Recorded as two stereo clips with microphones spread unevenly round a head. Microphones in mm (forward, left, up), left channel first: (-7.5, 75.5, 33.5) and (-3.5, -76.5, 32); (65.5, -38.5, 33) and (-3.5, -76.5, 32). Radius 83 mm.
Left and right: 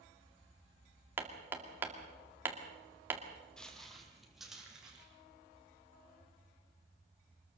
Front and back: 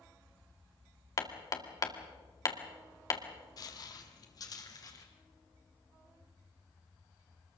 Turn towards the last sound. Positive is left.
turn(degrees=-5)